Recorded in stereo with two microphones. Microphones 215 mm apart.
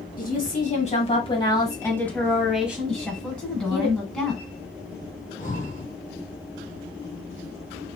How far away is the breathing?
About 1.7 m.